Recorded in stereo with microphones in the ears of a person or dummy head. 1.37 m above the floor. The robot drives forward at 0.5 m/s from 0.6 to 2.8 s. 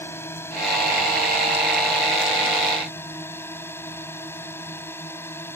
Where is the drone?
10° left (ahead or behind).